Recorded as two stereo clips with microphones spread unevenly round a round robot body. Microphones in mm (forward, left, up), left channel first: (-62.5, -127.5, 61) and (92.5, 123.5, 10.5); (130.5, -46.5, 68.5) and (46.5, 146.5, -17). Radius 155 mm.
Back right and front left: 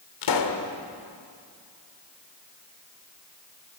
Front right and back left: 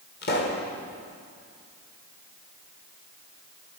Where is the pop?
130° right, 2.5 m.